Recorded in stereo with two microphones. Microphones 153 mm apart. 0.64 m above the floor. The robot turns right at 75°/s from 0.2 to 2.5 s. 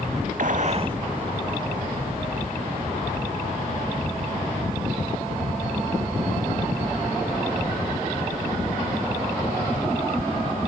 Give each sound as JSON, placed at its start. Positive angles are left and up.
{"t": 0.4, "sound": "a gunshot", "azimuth_deg": -75, "distance_m": 0.8}